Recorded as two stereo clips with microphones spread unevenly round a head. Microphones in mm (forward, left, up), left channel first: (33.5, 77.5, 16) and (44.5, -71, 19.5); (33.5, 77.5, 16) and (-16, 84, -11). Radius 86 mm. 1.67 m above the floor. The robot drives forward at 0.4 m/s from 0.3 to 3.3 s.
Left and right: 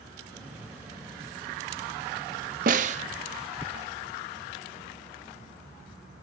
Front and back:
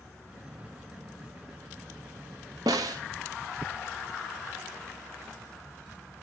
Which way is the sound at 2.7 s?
130° right.